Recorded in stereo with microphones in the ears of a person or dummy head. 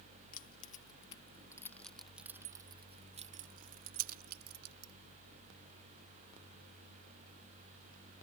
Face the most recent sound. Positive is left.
turn(degrees=-60)  # may be behind; listen again after turning